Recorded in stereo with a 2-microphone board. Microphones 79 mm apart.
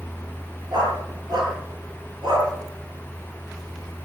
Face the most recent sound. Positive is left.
turn(degrees=-80)